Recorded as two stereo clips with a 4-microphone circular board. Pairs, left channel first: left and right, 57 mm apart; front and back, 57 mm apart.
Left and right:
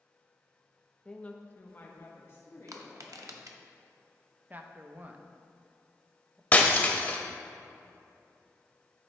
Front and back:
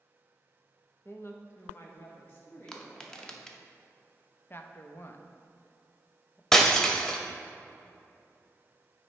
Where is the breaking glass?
70° left, 0.6 m.